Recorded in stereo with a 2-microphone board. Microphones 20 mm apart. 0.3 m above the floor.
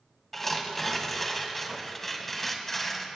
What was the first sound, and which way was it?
Tearing paper, 15° left (ahead or behind).